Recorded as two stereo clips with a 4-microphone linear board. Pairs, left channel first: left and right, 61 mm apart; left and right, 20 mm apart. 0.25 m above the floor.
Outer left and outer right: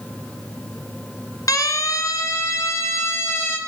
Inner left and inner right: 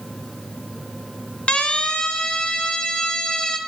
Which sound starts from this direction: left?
A siren, at 1.5 s.